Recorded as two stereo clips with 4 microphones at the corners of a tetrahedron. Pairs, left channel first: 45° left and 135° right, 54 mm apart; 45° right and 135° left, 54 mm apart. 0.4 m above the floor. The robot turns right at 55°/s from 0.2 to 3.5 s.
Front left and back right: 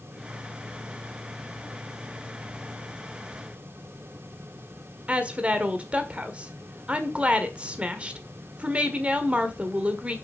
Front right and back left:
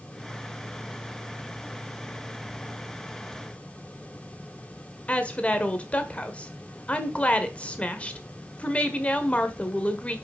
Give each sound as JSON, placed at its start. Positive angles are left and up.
{"t": 5.1, "sound": "a woman speaking", "azimuth_deg": -85, "distance_m": 1.3}